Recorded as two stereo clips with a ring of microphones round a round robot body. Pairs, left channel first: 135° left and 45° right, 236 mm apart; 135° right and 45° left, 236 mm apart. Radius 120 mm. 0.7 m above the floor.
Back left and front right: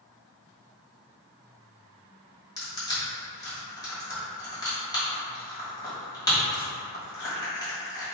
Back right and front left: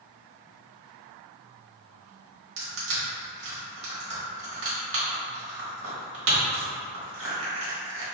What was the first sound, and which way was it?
Crushing, 60° left.